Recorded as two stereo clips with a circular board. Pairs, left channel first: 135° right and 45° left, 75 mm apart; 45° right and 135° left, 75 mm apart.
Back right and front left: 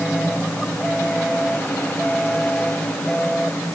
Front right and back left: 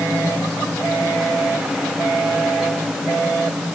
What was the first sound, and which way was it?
Only background noise.